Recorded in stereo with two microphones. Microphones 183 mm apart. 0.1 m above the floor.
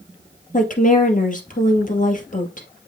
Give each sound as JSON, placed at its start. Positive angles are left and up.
{"t": 0.5, "sound": "a woman speaking", "side_deg": 45, "distance_m": 2.0}